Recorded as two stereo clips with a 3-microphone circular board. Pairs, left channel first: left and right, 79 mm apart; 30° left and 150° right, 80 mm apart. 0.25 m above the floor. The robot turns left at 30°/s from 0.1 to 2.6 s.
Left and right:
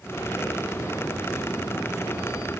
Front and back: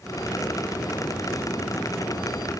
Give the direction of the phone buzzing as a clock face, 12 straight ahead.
I don't hear a phone buzzing.